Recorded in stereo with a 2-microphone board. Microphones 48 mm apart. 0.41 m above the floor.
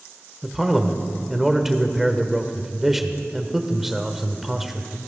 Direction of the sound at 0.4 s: 5° right (ahead or behind).